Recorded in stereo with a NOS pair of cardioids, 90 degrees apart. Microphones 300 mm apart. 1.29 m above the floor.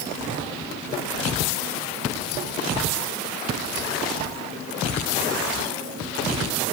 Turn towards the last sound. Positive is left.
No sound to turn to.